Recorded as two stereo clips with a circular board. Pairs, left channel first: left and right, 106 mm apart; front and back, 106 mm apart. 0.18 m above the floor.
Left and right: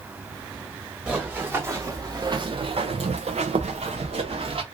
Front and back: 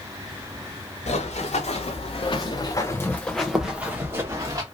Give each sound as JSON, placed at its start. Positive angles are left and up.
{"t": 1.1, "sound": "running footsteps", "azimuth_deg": -15, "distance_m": 1.2}